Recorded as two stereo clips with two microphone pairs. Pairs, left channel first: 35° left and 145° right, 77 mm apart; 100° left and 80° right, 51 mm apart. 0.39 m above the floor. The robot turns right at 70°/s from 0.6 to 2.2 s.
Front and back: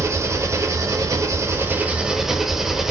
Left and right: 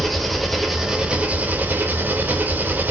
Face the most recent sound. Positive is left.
turn(degrees=-60)